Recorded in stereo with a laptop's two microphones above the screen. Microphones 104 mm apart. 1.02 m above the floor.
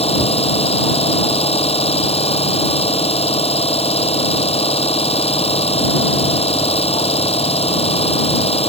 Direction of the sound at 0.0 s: 75° left (ahead or behind).